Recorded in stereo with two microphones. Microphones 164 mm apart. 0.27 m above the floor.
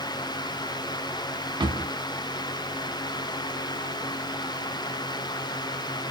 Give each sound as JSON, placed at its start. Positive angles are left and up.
{"t": 1.6, "sound": "a drawer", "side_deg": -25, "distance_m": 1.0}